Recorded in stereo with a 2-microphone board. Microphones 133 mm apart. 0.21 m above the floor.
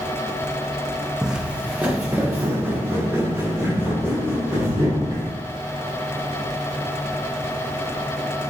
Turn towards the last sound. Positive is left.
turn(degrees=-20)  # may be behind; listen again after turning